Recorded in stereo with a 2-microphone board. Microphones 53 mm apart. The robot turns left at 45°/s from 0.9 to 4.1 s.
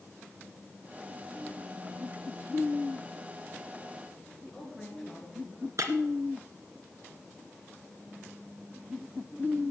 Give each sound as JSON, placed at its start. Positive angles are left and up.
{"t": 4.5, "sound": "a woman speaking", "side_deg": 5, "distance_m": 4.5}
{"t": 5.8, "sound": "breaking glass", "side_deg": -75, "distance_m": 2.0}